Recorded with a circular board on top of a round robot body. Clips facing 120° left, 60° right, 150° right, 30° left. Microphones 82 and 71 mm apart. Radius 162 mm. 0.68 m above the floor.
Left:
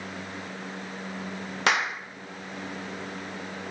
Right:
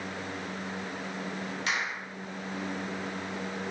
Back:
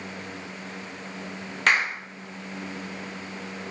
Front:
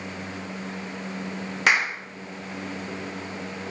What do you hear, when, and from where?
1.7 s a clap: 115° left, 2.5 m